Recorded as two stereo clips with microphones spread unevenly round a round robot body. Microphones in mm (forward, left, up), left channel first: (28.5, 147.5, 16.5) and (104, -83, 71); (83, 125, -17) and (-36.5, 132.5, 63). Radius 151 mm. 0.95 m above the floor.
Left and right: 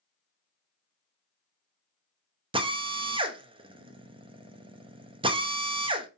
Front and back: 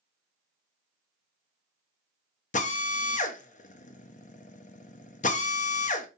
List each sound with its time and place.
2.5 s a drill: straight ahead, 0.6 m